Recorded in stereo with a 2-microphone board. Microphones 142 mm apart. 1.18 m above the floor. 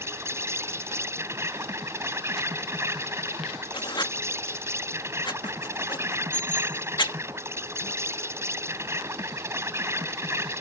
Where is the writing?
30° left (ahead or behind).